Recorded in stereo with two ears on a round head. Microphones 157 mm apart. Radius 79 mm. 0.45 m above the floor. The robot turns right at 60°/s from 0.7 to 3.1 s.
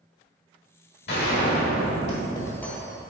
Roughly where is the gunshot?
Left.